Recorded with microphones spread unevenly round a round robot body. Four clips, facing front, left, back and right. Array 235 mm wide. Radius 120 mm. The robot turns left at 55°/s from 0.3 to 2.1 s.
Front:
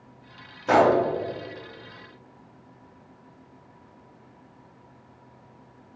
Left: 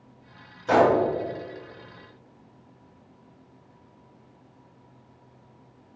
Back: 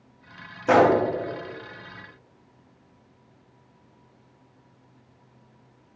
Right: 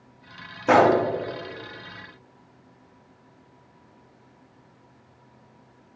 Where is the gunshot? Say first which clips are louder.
Right 2 dB, back 1 dB; 110° right, 1.0 m; by 1.0 s 125° right, 1.0 m.